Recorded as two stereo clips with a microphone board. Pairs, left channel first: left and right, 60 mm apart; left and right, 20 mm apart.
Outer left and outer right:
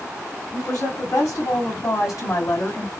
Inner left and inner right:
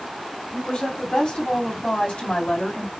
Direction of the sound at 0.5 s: 65° left (ahead or behind).